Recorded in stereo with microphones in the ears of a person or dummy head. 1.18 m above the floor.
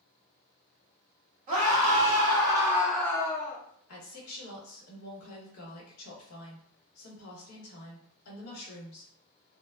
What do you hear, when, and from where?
1.5 s a scream: 40° right (ahead or behind), 1.4 m; by 3.6 s 45° left (ahead or behind), 0.6 m
3.9 s a woman speaking: 85° left, 1.2 m